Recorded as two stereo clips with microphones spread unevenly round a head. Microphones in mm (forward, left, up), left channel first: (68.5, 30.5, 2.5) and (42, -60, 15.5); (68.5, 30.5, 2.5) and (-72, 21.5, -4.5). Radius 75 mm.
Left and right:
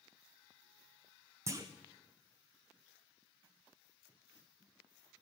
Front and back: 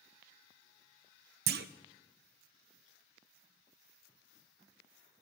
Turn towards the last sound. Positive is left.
turn(degrees=-175)